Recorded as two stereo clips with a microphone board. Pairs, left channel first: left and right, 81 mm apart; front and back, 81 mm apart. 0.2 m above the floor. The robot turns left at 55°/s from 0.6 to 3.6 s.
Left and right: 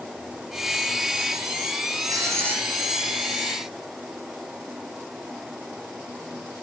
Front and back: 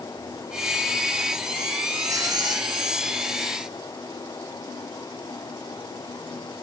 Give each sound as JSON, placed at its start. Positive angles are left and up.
{"t": 2.1, "sound": "writing", "azimuth_deg": -130, "distance_m": 7.0}